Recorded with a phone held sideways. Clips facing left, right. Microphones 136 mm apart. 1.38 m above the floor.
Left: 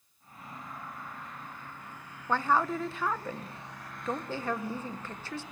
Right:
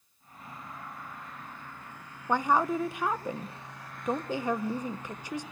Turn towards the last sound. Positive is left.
turn(degrees=-15)  # may be behind; listen again after turning